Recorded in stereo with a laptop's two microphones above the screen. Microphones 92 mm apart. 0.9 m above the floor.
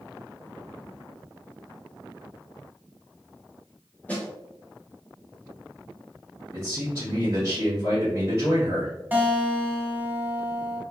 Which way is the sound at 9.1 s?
20° right (ahead or behind).